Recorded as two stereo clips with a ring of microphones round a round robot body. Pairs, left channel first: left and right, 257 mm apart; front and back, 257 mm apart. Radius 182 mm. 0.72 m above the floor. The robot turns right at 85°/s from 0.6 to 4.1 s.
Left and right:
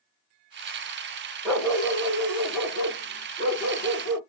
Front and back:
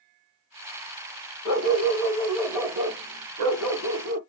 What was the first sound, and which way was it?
A dog barking, 5° right.